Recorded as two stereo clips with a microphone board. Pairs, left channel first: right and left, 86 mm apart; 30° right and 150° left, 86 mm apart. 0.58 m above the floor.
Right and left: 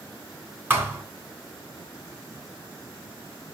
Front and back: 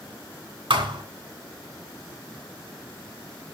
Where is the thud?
155° left, 2.5 m.